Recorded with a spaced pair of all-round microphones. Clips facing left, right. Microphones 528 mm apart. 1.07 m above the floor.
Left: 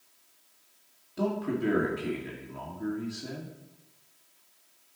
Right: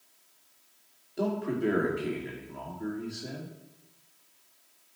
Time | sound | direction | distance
1.2 | a man speaking | 25° left (ahead or behind) | 2.5 m